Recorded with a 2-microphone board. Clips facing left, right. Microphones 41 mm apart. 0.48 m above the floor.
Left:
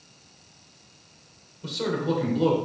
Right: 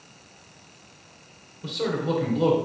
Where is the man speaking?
5° right (ahead or behind), 1.8 m.